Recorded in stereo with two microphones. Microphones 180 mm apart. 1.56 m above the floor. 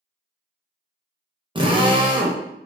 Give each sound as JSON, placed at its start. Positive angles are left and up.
{"t": 1.6, "sound": "a drill", "side_deg": -25, "distance_m": 0.8}